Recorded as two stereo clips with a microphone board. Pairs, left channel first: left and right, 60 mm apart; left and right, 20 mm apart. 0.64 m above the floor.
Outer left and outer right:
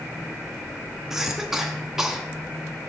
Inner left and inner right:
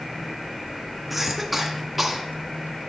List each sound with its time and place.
1.1 s a cough: 5° right (ahead or behind), 0.7 m